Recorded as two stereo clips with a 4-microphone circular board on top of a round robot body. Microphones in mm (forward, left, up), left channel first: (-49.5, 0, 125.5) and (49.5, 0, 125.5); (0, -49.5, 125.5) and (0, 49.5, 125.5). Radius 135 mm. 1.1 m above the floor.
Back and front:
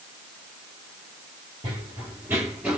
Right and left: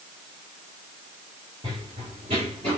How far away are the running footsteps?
About 1.2 m.